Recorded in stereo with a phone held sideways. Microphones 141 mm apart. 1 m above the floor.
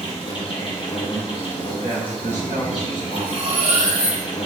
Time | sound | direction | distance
0.0 | an insect | 40° left (ahead or behind) | 0.7 m
1.8 | a man speaking | 65° right (ahead or behind) | 1.2 m
3.1 | cutlery clinking | 60° right (ahead or behind) | 1.3 m